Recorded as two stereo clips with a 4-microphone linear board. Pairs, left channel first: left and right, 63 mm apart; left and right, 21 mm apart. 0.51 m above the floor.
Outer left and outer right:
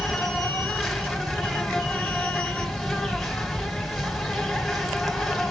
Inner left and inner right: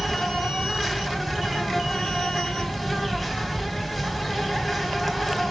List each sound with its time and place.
0.0 s an insect: centre (ahead or behind), 2.5 m